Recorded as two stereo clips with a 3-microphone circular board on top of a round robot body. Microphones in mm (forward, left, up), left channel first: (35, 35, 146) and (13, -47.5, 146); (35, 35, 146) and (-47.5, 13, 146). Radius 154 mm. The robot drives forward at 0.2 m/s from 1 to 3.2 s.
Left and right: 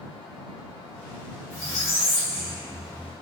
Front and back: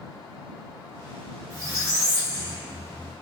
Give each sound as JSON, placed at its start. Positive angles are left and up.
{"t": 1.5, "sound": "a squeak", "azimuth_deg": 140, "distance_m": 0.9}